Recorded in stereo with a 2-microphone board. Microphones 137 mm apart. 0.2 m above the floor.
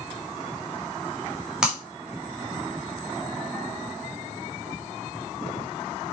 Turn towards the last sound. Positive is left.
turn(degrees=-5)  # may be behind; listen again after turning